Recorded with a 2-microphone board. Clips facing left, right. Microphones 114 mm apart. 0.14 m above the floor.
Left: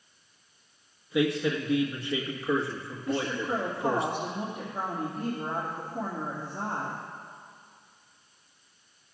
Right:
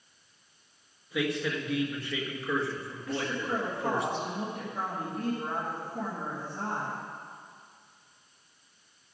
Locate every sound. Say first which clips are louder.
1.1 s a man speaking: left 4 dB; 20° left (ahead or behind), 1.6 m
3.1 s a woman speaking: left 3 dB; 15° left (ahead or behind), 3 m